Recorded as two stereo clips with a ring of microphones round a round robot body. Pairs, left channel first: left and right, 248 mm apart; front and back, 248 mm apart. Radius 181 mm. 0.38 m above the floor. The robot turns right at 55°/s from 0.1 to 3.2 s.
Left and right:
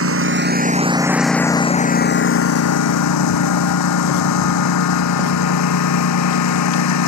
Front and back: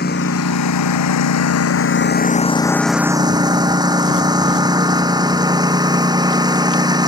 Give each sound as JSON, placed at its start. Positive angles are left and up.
{"t": 0.0, "sound": "a lawn mower", "azimuth_deg": -65}